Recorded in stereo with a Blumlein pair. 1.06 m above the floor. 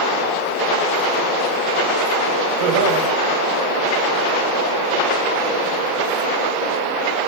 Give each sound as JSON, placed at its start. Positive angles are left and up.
{"t": 2.6, "sound": "laughter", "azimuth_deg": -55, "distance_m": 6.0}